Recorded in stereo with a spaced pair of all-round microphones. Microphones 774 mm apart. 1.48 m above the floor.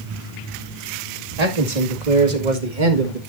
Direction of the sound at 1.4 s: 55° right (ahead or behind).